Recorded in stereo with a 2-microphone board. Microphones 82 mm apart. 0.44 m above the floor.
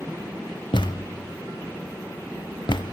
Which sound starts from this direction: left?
A thud, at 0.7 s.